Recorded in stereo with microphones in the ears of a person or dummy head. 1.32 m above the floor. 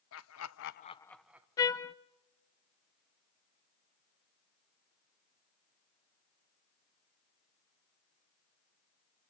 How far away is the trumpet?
About 0.6 m.